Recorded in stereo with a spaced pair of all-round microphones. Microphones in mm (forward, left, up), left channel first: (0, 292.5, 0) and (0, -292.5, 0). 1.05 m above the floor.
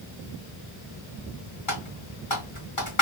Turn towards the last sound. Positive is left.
turn(degrees=55)  # may be behind; listen again after turning